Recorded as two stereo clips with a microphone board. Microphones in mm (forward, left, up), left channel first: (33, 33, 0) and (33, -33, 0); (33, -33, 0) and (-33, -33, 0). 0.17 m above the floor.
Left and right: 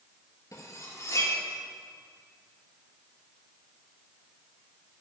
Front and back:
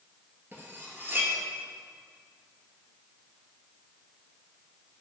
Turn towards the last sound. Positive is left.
turn(degrees=125)